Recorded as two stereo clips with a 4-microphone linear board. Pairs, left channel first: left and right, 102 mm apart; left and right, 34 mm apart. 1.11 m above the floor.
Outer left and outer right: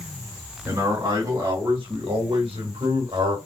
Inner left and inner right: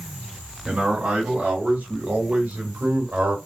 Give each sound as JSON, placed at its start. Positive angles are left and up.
{"t": 0.7, "sound": "a man speaking", "side_deg": -40, "distance_m": 2.5}